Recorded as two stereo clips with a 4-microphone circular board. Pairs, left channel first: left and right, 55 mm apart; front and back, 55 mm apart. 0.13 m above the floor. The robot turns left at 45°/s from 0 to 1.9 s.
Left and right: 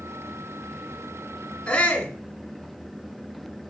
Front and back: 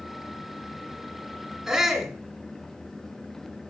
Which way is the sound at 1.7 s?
110° left.